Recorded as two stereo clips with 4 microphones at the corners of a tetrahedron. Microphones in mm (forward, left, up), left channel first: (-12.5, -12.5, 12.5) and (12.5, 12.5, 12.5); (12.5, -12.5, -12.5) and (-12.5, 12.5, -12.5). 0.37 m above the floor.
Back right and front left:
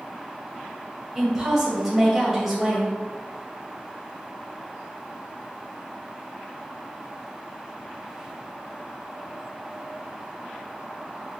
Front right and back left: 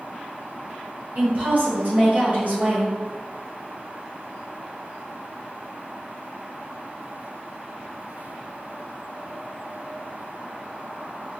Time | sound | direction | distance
1.1 | a woman speaking | 125° left | 1.9 m